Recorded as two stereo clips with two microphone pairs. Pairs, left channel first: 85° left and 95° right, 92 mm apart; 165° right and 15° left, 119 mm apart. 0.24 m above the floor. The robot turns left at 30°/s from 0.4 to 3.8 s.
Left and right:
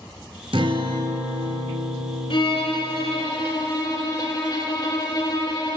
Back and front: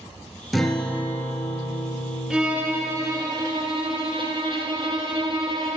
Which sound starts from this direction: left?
A violin, at 2.3 s.